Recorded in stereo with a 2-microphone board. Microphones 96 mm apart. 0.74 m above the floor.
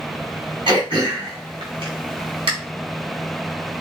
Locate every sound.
0.7 s throat clearing: 60° right (ahead or behind), 2.5 m